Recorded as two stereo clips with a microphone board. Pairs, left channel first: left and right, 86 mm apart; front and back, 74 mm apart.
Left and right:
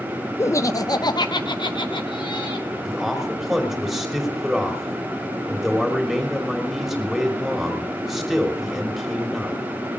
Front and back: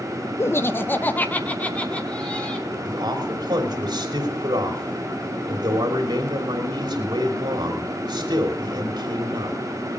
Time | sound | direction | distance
0.4 | laughter | 40° left | 0.6 m
2.9 | a man speaking | straight behind | 3 m